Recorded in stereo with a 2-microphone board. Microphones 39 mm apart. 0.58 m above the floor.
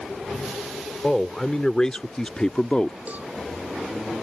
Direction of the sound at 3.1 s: 45° right (ahead or behind).